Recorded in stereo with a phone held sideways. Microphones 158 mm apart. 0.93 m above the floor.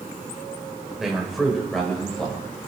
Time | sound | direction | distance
1.0 | a man speaking | centre (ahead or behind) | 4.5 m